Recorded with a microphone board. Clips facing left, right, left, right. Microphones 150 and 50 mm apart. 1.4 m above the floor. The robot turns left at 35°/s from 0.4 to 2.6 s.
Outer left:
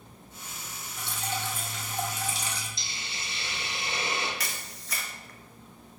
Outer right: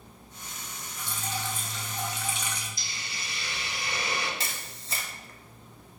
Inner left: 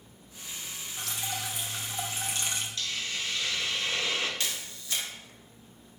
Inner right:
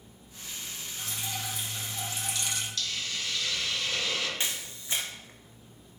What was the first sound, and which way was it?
Dripping, 90° left.